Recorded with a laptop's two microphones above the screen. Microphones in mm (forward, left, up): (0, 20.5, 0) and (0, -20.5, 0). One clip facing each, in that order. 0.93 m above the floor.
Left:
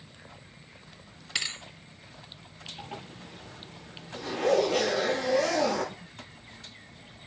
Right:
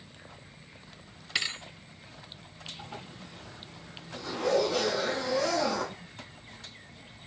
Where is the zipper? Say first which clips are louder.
Left 4 dB; 50° left (ahead or behind), 8 m.